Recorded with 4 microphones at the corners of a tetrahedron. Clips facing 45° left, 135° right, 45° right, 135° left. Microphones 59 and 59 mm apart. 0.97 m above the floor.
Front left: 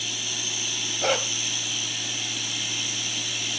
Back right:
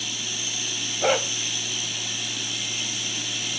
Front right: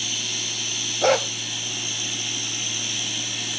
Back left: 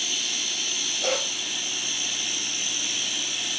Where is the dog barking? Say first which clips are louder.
Back right 3 dB, front right 9 dB; 55° right, 1.2 m.